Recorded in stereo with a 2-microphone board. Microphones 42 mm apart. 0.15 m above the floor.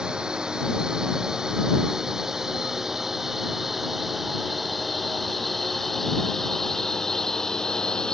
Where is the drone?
20° right (ahead or behind); by 8.2 s 15° left (ahead or behind).